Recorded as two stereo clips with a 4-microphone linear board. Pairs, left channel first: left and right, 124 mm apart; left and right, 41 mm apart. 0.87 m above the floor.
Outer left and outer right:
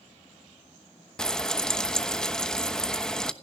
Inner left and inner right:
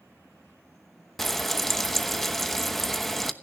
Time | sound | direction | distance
1.2 | frying | 5° left (ahead or behind) | 0.9 m